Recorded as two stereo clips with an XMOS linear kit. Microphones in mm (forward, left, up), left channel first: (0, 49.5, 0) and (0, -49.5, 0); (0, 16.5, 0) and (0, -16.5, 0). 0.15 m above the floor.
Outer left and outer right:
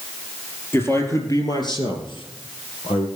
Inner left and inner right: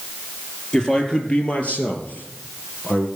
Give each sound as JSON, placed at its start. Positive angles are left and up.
{"t": 0.7, "sound": "a man speaking", "side_deg": 20, "distance_m": 3.0}